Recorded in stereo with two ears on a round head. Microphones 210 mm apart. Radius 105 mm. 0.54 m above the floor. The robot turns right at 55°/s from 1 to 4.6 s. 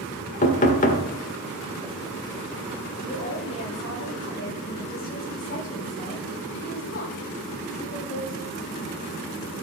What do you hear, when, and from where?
0.4 s knocking: 35° left (ahead or behind), 1.6 m
3.0 s a woman speaking: 45° left, 3 m; by 8.7 s 135° left, 3 m